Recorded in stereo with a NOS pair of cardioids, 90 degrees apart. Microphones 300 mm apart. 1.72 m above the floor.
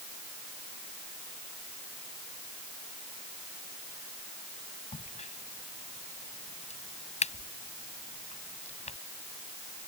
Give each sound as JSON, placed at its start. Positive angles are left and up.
{"t": 4.9, "sound": "a crack", "azimuth_deg": 20}